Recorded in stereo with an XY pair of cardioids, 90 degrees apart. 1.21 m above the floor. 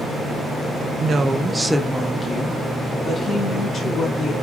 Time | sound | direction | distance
1.0 | a woman speaking | 55° right | 0.6 m